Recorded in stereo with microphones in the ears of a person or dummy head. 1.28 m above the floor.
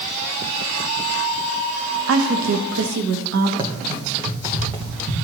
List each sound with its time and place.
2.1 s a woman speaking: 85° right, 0.8 m; by 3.5 s 90° right, 1.6 m
3.6 s running footsteps: 30° right (ahead or behind), 3 m; by 5.2 s 15° right (ahead or behind), 3.5 m